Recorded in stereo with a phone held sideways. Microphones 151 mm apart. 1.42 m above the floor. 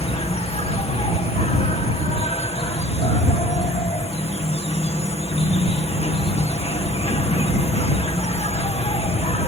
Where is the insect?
45° left (ahead or behind).